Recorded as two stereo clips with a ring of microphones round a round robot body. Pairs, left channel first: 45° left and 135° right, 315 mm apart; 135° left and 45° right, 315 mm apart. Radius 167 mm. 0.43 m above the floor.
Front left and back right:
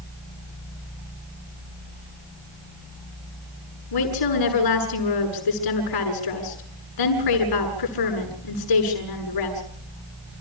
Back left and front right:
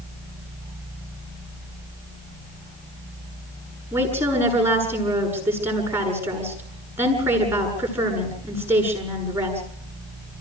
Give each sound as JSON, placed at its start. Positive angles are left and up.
{"t": 3.9, "sound": "a woman speaking", "azimuth_deg": 40, "distance_m": 7.0}